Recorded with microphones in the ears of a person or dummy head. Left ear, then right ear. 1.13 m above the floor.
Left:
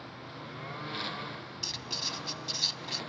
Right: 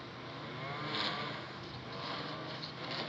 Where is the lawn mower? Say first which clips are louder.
Left 1 dB; 10° right (ahead or behind).